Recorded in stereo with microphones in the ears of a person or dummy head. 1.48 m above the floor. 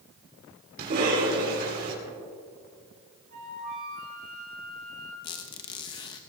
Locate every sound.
0.8 s a cough: 55° right (ahead or behind), 4 m
3.3 s a flute: 50° right (ahead or behind), 5.5 m
5.2 s a squeak: 25° left (ahead or behind), 0.9 m